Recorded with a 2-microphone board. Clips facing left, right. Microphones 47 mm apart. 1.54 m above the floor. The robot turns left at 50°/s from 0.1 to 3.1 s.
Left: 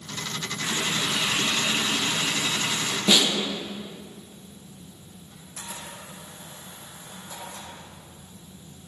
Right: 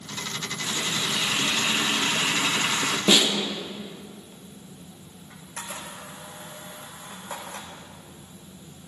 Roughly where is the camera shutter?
Right.